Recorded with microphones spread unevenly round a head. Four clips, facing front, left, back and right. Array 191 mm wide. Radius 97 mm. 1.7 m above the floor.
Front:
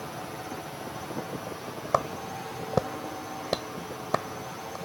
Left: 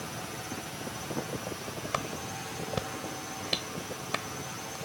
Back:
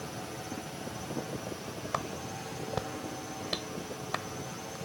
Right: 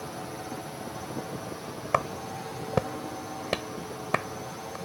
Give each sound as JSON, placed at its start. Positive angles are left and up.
{"t": 0.0, "sound": "a drone", "azimuth_deg": -70}
{"t": 1.9, "sound": "a clap", "azimuth_deg": -30}